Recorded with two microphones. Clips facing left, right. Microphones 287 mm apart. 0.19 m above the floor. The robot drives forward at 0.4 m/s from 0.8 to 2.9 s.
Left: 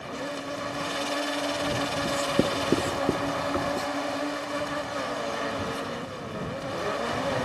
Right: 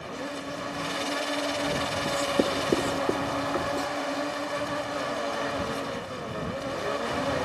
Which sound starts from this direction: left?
Writing, at 2.0 s.